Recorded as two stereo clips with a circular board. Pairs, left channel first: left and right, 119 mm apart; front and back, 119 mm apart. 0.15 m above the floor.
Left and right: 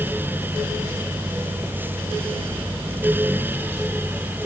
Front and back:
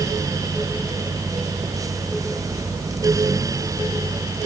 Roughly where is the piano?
I don't hear a piano.